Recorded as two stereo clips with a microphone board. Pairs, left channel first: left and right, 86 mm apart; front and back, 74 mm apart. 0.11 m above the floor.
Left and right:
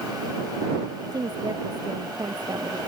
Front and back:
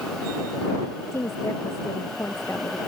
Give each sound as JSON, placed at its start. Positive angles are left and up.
{"t": 1.1, "sound": "a woman speaking", "azimuth_deg": -55}